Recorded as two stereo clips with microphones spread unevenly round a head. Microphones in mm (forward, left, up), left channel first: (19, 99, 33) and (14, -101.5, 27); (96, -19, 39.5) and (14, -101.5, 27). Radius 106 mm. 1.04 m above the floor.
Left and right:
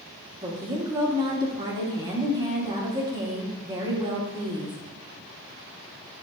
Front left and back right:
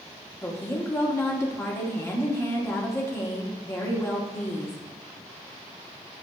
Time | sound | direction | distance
0.4 | a woman speaking | 25° right | 2.5 m